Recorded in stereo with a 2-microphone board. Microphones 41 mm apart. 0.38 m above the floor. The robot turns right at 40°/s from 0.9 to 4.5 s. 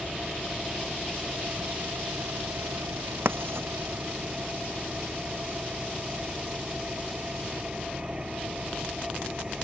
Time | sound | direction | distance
0.0 | an engine running | 165° right | ?
3.2 | writing | 70° right (ahead or behind) | ?